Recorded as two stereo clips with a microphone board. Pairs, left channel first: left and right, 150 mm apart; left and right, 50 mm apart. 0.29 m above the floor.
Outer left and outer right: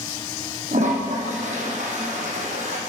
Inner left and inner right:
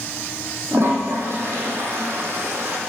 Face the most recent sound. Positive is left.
turn(degrees=-55)  # may be behind; listen again after turning